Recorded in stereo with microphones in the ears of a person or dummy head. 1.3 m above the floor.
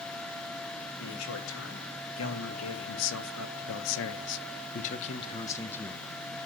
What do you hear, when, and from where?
1.0 s a man speaking: 75° left (ahead or behind), 3 m; by 6.0 s centre (ahead or behind), 1.2 m